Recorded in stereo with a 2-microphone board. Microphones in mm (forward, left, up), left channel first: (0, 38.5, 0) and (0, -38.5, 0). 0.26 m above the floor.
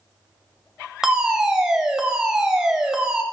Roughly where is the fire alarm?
Centre.